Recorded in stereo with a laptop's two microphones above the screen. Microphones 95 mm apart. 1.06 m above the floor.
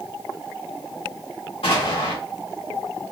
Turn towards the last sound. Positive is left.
turn(degrees=85)